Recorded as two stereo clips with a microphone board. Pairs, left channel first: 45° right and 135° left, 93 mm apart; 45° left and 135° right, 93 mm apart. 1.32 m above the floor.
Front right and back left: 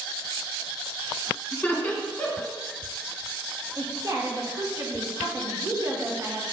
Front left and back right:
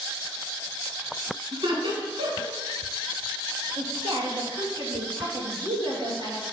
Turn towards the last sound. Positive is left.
turn(degrees=-170)